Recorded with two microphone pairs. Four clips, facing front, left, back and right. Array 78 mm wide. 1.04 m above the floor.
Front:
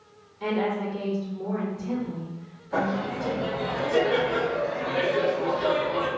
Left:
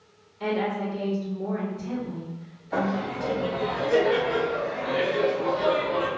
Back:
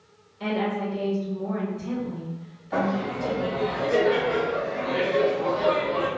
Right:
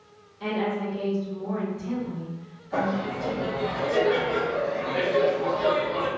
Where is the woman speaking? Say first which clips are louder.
Left 1 dB, even; 150° left, 1.6 m.